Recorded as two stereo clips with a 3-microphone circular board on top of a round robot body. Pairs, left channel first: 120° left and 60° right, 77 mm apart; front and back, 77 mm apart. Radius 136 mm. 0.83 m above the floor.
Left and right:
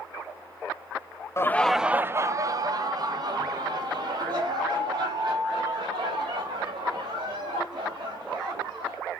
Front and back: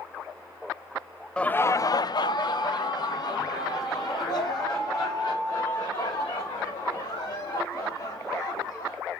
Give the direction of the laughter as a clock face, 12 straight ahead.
9 o'clock.